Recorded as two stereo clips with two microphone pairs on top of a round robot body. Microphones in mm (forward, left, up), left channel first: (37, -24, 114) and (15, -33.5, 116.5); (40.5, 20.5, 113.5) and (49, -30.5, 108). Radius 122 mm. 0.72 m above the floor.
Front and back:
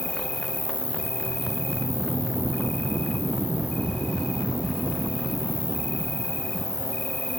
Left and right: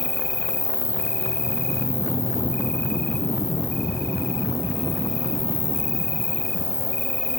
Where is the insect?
35° left, 1.0 m.